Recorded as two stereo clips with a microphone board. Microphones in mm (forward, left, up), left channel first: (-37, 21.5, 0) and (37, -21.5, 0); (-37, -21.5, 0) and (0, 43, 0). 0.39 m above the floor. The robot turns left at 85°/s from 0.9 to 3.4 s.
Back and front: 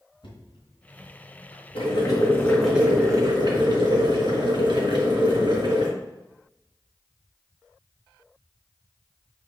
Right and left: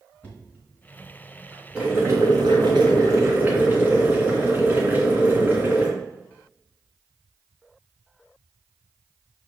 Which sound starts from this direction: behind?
Knocking, at 0.2 s.